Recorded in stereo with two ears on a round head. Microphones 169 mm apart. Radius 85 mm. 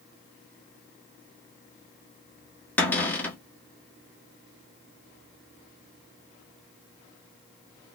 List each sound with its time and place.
2.8 s a cupboard door: 10° left (ahead or behind), 1.1 m